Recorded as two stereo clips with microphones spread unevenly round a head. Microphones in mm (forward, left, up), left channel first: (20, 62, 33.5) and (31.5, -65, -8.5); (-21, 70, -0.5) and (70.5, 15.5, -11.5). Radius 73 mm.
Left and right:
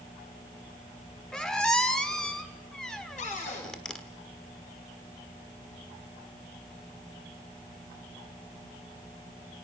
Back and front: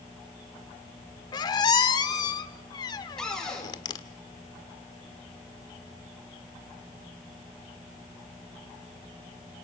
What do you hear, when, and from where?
1.3 s a squeak: 155° left, 1.5 m
3.2 s a cupboard door: 65° left, 7.5 m